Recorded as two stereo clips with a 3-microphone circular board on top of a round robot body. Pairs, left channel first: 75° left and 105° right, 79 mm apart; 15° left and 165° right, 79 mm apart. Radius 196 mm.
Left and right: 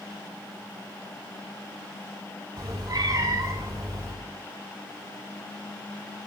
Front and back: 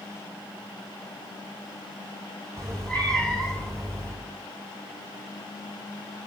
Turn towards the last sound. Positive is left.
turn(degrees=-65)